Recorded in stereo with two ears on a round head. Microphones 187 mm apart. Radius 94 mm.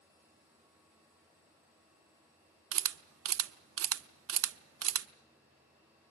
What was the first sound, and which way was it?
A camera shutter, 70° right (ahead or behind).